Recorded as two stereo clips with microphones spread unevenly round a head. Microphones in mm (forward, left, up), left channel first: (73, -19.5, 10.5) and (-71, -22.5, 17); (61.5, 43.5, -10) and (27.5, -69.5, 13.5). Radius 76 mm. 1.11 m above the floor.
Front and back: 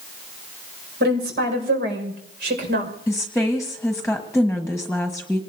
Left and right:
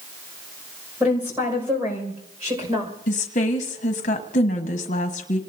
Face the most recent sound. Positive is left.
turn(degrees=90)